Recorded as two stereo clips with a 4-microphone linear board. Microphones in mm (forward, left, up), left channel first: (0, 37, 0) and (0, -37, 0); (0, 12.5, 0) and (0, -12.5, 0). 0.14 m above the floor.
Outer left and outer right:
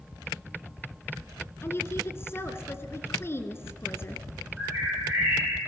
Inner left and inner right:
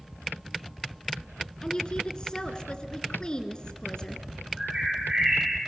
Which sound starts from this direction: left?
A woman speaking, at 1.6 s.